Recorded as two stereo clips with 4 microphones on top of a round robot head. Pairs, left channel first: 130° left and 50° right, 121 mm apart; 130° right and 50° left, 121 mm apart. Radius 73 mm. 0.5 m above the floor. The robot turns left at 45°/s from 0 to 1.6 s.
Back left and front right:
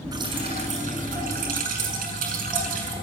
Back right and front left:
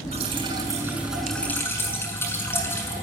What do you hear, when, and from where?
0.1 s dripping: 10° left, 7 m; by 3.0 s 55° right, 7 m